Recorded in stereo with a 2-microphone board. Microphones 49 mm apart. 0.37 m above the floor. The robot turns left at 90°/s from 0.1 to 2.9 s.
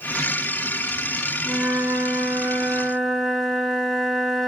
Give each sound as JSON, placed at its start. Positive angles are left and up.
{"t": 1.4, "sound": "a flute", "azimuth_deg": -45, "distance_m": 1.1}